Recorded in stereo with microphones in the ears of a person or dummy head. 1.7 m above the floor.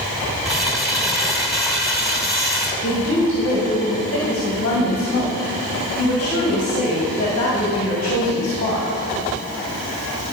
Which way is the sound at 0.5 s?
5° right (ahead or behind).